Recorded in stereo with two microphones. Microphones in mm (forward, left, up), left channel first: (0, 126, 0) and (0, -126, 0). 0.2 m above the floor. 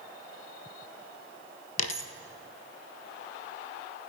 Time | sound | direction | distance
1.8 | a dropped coin | 80° left | 0.6 m